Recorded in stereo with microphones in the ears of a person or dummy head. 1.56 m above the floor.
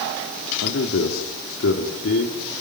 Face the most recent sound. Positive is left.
turn(degrees=60)  # may be behind; listen again after turning